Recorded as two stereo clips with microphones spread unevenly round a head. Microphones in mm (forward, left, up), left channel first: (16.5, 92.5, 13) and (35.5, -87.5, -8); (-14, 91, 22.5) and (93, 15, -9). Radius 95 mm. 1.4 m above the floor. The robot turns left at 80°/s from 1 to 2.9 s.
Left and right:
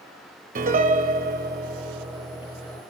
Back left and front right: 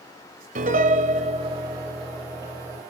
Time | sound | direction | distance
0.6 | a piano | 55° right | 1.5 m